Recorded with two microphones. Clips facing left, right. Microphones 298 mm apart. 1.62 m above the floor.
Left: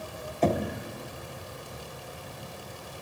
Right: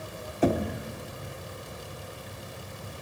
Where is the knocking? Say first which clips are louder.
Right 2 dB; 10° right (ahead or behind), 0.7 m.